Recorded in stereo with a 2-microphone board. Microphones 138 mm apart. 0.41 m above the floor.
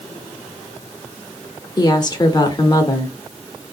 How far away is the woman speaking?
About 0.9 m.